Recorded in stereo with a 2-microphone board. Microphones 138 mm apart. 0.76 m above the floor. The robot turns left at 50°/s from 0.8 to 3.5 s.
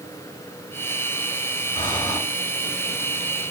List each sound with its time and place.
1.8 s breathing: 45° left (ahead or behind), 3 m; by 2.2 s 20° left (ahead or behind), 3 m